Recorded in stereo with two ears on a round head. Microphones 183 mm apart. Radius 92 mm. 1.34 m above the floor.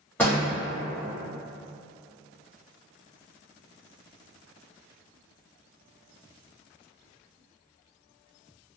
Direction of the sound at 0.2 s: 10° left (ahead or behind).